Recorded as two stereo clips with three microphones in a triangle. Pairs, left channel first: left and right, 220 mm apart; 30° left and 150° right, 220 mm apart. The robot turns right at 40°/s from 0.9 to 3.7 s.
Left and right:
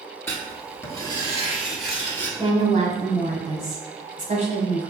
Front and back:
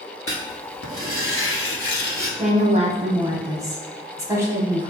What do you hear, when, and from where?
0.3 s writing: 15° left, 1.1 m; by 2.3 s 70° left, 1.1 m
2.4 s a woman speaking: 135° right, 1.2 m; by 4.9 s 85° right, 1.2 m